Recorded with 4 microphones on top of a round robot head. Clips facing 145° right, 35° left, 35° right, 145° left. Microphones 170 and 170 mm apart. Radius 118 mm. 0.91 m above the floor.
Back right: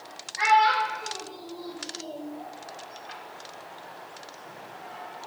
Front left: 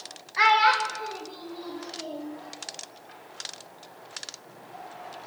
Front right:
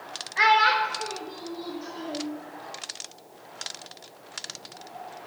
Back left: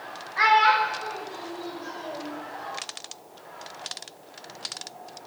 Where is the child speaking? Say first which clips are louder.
Back right 1 dB, back left 1 dB; 30° left, 0.6 m; by 2.3 s 30° right, 1.4 m.